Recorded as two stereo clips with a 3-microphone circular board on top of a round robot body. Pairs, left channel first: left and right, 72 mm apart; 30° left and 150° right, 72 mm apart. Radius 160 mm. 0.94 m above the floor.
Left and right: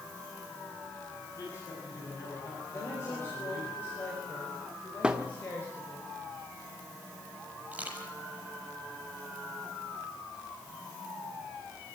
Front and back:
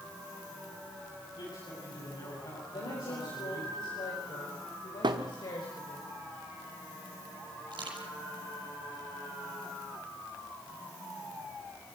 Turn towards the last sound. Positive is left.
turn(degrees=-160)